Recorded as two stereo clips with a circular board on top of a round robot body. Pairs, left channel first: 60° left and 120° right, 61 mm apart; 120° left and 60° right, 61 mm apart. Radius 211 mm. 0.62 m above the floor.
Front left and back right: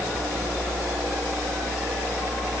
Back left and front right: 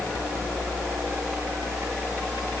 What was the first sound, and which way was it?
Only background noise.